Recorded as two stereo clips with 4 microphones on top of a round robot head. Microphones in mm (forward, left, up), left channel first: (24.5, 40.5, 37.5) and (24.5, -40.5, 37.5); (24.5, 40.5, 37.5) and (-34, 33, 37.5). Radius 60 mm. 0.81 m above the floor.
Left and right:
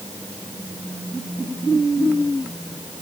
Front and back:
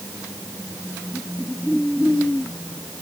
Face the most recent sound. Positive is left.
No sound to turn to.